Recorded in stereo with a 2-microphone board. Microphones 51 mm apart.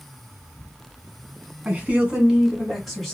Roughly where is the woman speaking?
Right.